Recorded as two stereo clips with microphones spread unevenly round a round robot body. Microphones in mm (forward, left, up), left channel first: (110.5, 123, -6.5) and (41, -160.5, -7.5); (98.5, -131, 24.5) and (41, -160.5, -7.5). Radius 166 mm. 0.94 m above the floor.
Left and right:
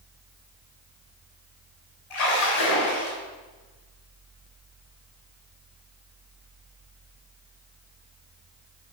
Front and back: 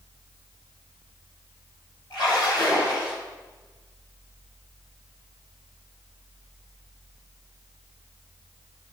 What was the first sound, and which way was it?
A splash, 100° left.